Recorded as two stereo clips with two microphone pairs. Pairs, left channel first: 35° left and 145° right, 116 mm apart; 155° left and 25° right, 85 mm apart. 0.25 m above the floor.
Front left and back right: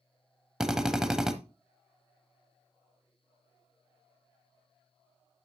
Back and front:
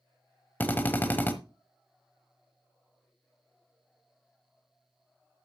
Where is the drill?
130° left, 1.0 m.